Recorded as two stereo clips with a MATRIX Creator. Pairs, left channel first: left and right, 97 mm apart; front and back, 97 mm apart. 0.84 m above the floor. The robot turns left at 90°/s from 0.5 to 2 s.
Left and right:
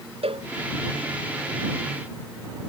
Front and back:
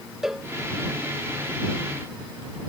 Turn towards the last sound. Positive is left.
turn(degrees=130)